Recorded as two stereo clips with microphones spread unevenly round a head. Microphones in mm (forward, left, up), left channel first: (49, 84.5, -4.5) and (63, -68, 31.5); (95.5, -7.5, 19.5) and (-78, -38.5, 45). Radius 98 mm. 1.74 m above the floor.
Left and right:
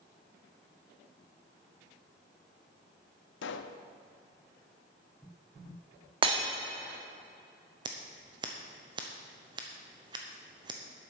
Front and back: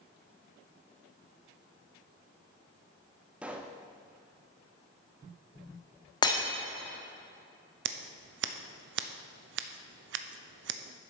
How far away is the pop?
About 0.6 m.